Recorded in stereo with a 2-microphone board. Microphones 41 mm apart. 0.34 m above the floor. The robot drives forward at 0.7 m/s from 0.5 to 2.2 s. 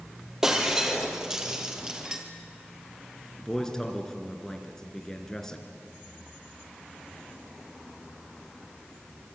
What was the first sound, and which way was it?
Breaking glass, 15° right (ahead or behind).